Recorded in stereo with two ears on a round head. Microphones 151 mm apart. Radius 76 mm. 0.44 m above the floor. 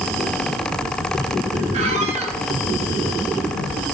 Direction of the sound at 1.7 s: 40° right (ahead or behind).